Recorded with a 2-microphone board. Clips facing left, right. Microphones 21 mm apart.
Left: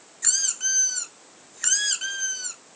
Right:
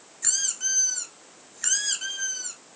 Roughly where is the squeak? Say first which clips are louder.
Left 2 dB; centre.